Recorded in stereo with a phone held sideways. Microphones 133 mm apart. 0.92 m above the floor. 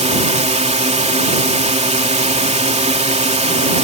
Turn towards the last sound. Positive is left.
turn(degrees=-55)  # may be behind; listen again after turning